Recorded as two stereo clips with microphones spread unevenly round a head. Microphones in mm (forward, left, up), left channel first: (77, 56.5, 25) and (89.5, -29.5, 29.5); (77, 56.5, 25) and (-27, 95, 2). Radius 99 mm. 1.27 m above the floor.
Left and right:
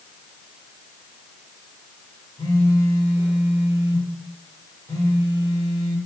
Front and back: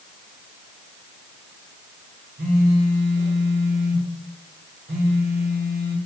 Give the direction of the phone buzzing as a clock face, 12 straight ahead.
6 o'clock.